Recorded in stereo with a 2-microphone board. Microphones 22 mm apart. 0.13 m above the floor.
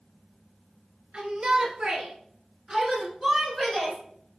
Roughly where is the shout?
Right.